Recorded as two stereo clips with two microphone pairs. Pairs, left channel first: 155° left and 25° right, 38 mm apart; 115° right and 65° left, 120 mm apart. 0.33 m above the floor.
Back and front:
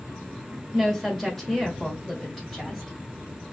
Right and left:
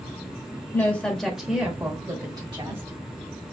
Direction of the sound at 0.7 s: 150° right.